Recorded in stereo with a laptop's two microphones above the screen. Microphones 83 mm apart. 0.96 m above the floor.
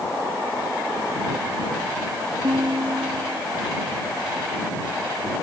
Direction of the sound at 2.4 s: 75° right (ahead or behind).